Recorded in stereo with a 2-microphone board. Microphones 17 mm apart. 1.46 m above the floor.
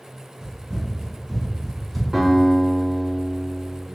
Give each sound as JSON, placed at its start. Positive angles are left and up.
{"t": 0.4, "sound": "running footsteps", "side_deg": -20, "distance_m": 1.8}
{"t": 2.1, "sound": "a guitar", "side_deg": -50, "distance_m": 1.0}